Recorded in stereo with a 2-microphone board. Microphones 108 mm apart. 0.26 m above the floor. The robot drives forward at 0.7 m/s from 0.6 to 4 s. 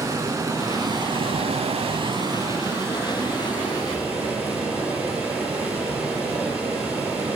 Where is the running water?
30° right (ahead or behind), 0.8 m; by 7.4 s 15° right (ahead or behind), 1.7 m.